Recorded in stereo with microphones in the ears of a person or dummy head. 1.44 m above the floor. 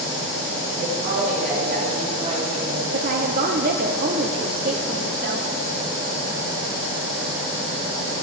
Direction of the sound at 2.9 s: 40° right (ahead or behind).